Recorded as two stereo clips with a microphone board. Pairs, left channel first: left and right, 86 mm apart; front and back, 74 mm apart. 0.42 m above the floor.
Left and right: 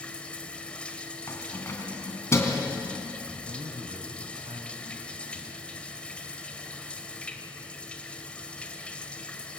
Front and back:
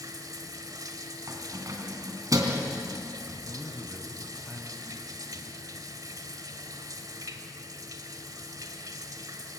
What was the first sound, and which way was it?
Running water, 165° left.